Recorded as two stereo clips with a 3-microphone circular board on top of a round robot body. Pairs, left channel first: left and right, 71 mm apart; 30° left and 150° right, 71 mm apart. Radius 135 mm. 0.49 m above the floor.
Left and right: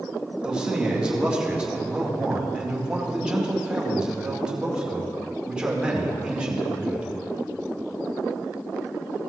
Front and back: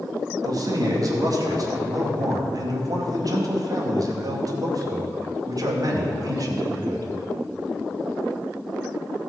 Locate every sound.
0.4 s a man speaking: 165° right, 2.5 m